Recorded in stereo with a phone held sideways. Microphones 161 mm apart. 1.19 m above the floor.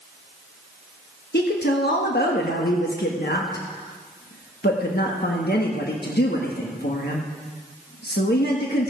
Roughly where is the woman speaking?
Left.